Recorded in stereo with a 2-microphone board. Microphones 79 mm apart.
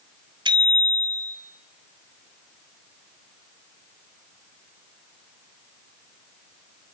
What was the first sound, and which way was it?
A bicycle bell, 80° right.